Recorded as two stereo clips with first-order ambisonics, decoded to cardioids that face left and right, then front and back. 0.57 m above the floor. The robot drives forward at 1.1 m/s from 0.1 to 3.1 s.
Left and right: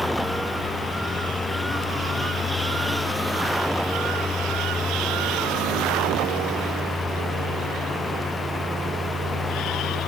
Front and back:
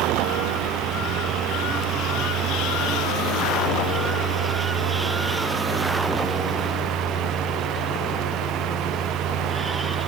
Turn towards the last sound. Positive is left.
No sound to turn to.